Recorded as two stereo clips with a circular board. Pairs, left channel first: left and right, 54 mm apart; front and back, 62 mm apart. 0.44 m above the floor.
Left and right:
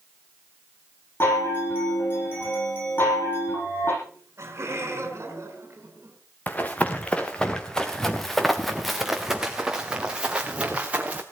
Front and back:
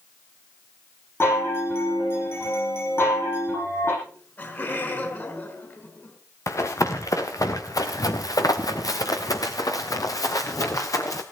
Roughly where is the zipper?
I don't hear a zipper.